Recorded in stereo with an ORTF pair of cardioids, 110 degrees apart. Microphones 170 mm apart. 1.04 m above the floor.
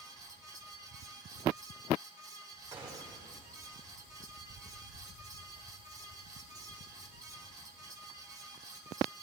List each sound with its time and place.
0.0 s a fan: 20° right, 1.2 m
2.7 s a gunshot: 25° right, 1.8 m